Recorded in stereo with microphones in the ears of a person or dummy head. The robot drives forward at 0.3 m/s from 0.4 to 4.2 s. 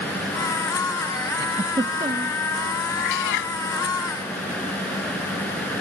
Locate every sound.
1.4 s a giggle: 20° right (ahead or behind)
3.0 s a cat meowing: 65° left (ahead or behind)